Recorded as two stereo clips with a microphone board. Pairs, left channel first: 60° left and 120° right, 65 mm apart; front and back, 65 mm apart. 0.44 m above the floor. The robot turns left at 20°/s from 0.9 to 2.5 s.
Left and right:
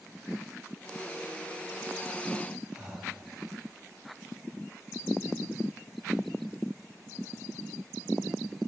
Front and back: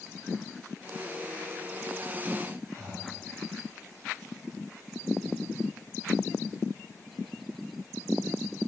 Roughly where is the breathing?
Behind.